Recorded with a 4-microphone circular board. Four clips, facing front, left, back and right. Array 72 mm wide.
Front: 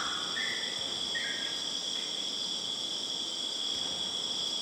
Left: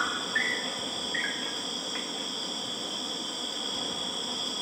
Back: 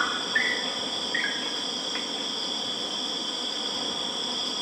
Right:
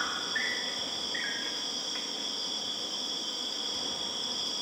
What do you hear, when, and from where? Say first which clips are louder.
0.0 s an insect: left 4 dB, back 9 dB; 165° left, 2 m